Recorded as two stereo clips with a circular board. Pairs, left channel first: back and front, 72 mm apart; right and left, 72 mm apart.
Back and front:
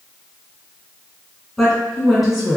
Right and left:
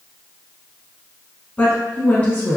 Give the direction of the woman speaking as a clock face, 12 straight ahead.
3 o'clock.